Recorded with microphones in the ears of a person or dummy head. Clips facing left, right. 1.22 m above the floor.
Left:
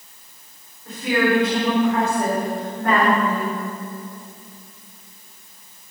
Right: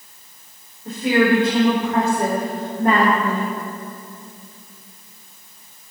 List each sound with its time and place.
0.8 s a woman speaking: 25° right (ahead or behind), 3 m